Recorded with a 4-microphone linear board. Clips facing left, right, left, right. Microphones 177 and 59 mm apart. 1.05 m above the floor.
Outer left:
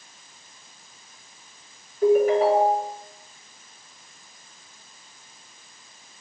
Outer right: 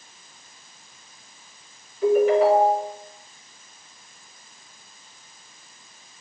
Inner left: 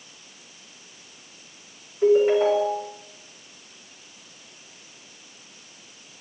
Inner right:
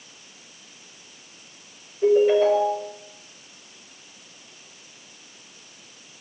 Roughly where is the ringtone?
Left.